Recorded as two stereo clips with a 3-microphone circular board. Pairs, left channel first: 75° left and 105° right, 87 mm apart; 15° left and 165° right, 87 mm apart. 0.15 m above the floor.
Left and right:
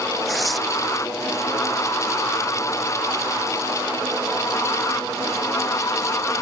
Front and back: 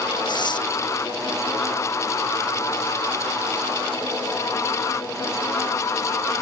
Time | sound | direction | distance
0.3 | tearing paper | 15° right | ?